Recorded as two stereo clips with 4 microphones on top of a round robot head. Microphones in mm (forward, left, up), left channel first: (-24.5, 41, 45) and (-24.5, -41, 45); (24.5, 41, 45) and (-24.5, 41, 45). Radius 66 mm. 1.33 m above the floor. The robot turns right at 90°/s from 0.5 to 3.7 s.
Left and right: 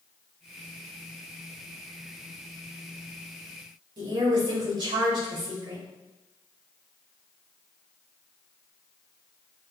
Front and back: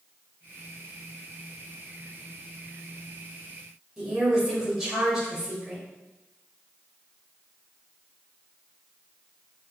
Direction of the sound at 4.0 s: 90° right.